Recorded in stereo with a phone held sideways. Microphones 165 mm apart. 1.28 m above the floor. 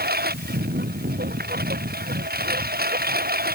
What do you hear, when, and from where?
0.0 s a lawn mower: 70° right (ahead or behind)